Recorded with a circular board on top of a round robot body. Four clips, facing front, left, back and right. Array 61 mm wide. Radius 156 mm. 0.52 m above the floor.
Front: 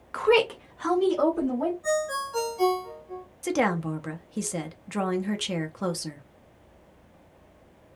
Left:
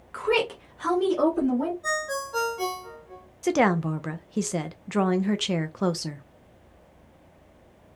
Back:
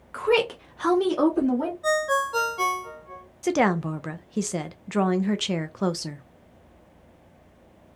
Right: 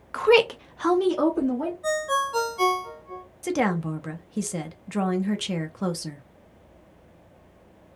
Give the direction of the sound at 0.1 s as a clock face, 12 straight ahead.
2 o'clock.